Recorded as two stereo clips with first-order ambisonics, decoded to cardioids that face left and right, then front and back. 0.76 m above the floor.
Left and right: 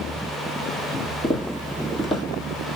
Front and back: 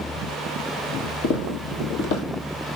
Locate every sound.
1.2 s footsteps: 15° left, 1.7 m